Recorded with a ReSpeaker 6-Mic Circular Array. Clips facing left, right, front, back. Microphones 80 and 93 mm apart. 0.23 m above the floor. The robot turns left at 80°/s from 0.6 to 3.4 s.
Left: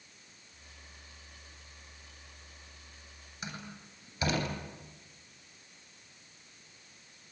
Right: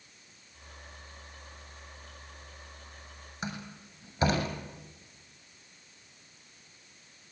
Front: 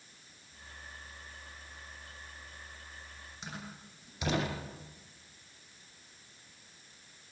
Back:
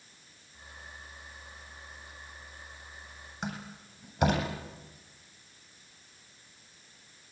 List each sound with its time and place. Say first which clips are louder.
3.4 s a door slam: right 4 dB, back 7 dB; 145° right, 8 m